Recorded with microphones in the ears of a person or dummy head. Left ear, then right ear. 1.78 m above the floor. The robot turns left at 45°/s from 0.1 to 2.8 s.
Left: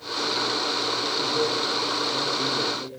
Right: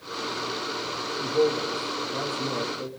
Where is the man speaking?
85° right, 2.5 m; by 2.9 s 160° right, 2.5 m.